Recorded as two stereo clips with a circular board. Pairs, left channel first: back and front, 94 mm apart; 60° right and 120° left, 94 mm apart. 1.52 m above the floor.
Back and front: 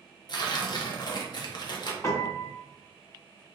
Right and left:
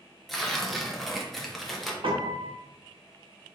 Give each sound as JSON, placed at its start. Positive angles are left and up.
{"t": 0.3, "sound": "tearing paper", "azimuth_deg": -150, "distance_m": 0.6}
{"t": 2.0, "sound": "a piano", "azimuth_deg": 125, "distance_m": 0.7}